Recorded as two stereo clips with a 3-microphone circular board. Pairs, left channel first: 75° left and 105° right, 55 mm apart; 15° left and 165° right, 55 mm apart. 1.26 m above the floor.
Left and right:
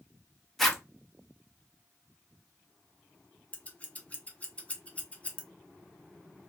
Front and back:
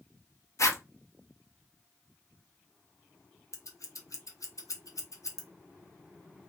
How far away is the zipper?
About 0.6 m.